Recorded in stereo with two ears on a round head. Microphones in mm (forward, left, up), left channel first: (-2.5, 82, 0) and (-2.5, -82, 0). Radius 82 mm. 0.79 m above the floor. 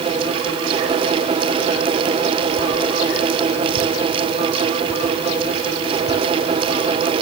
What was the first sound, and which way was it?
Only background noise.